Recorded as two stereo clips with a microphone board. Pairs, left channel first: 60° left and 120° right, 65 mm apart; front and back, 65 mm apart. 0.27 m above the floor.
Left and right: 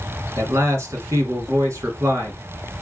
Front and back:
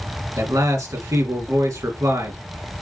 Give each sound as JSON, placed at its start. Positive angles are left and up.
{"t": 0.4, "sound": "a man speaking", "azimuth_deg": -155, "distance_m": 3.0}